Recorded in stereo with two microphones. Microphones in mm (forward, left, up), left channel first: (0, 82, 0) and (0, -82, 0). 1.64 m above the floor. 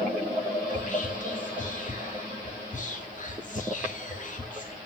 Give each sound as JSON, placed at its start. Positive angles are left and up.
{"t": 0.7, "sound": "whispering", "side_deg": 50, "distance_m": 0.5}